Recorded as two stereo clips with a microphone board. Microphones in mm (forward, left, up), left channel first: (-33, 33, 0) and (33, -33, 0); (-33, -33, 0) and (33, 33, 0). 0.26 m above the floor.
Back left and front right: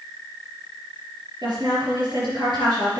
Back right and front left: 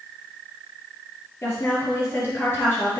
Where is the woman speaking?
75° right, 4 m.